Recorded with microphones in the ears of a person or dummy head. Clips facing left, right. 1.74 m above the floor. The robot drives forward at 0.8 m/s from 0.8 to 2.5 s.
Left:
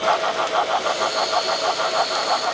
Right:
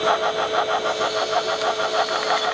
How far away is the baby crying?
I don't hear a baby crying.